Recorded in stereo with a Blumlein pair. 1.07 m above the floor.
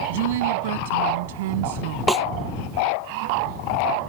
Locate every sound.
0.1 s a woman speaking: 55° right
2.1 s a snare drum: 10° right